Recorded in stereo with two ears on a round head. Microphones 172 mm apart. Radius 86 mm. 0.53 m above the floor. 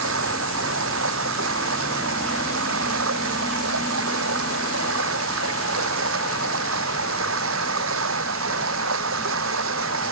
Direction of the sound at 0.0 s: 75° right (ahead or behind).